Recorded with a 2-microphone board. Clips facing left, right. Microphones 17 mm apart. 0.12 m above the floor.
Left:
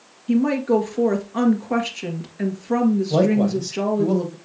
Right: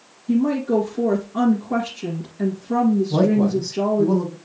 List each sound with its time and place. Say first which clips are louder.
0.3 s a woman speaking: left 1 dB; 35° left (ahead or behind), 1.8 m
3.1 s a man speaking: even; 65° left (ahead or behind), 3 m